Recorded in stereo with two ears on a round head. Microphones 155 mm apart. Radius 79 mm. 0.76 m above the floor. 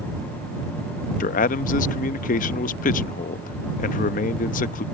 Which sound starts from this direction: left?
A man speaking, at 1.2 s.